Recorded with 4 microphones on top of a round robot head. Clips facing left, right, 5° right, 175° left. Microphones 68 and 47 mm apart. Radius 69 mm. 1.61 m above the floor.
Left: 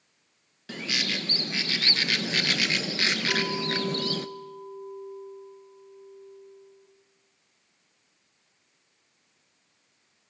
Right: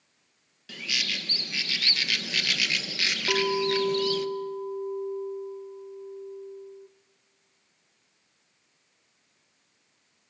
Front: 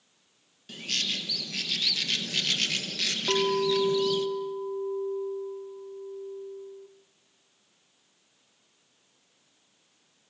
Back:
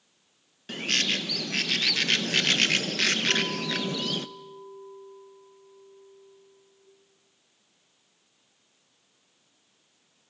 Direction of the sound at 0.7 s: 140° left.